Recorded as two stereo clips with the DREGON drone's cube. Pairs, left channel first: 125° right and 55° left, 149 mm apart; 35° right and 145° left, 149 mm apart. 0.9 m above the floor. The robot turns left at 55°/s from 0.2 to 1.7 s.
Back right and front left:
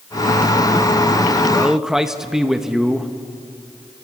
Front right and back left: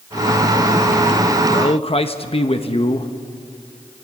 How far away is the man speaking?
About 1.0 m.